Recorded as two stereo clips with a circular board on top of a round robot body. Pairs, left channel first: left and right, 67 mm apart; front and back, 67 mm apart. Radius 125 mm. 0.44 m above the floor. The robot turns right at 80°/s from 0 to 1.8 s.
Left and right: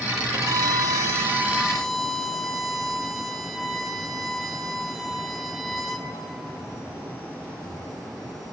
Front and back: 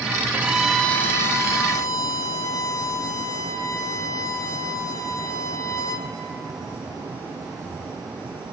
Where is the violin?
120° right, 2.0 m; by 6.1 s straight ahead, 2.0 m.